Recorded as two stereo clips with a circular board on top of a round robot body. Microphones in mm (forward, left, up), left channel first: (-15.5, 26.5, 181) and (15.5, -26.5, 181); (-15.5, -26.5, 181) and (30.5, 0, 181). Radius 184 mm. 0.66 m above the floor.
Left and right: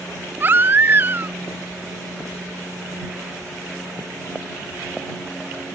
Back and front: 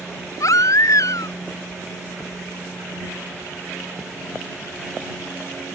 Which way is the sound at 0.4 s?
120° right.